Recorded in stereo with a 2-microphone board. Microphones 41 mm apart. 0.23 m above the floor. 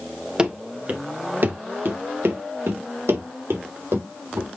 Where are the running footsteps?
20° right (ahead or behind), 2 m; by 4.5 s 85° right, 4.5 m.